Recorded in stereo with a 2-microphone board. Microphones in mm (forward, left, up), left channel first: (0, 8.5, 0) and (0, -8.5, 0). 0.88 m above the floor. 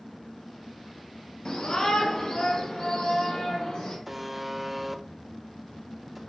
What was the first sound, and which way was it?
A shout, 55° left (ahead or behind).